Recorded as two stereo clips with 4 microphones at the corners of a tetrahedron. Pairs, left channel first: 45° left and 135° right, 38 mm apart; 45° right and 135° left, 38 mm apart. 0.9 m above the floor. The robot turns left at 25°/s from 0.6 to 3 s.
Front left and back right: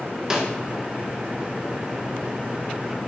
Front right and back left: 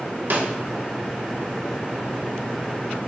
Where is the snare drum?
155° left, 0.6 m.